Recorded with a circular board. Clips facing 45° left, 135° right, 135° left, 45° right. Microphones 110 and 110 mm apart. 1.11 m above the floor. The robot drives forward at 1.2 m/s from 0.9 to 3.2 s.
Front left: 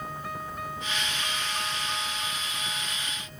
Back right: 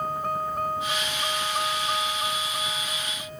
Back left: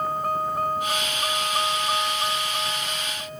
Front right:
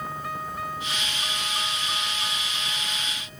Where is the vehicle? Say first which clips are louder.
Back right 8 dB, back left 7 dB; straight behind.